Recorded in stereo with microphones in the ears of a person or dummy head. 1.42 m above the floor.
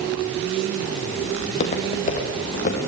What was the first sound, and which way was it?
Footsteps, 35° left (ahead or behind).